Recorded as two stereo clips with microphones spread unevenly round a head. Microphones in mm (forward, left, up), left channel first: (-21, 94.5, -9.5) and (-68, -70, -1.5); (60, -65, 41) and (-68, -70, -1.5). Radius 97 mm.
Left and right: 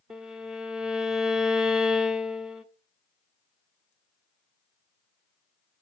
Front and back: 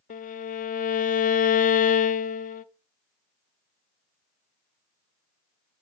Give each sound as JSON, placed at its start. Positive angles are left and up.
{"t": 0.1, "sound": "a violin", "azimuth_deg": -20, "distance_m": 0.6}